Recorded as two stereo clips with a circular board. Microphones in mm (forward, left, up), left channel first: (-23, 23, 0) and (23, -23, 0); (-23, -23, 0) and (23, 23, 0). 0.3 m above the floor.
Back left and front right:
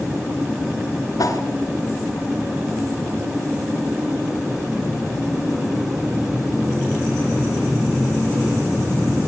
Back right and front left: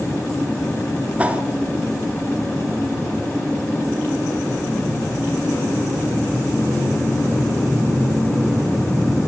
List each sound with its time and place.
1.2 s a whoosh: 115° left, 1.4 m